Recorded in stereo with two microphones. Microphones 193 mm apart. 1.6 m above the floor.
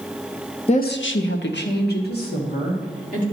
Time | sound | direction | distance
0.7 | a woman speaking | 30° left (ahead or behind) | 0.6 m